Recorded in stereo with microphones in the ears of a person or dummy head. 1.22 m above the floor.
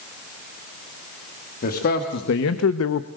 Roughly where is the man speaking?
Left.